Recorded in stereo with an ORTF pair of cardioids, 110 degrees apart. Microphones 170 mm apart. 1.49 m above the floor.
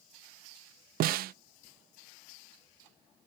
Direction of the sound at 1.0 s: 65° right.